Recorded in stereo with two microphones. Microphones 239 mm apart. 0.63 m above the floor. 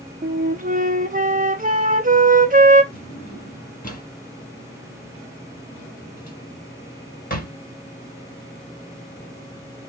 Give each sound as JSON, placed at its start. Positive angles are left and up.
{"t": 0.2, "sound": "a flute", "side_deg": -35, "distance_m": 0.6}
{"t": 2.9, "sound": "a drawer", "side_deg": 35, "distance_m": 1.7}